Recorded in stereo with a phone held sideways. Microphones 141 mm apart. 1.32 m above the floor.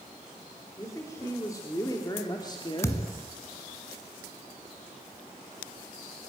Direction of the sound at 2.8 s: 20° left (ahead or behind).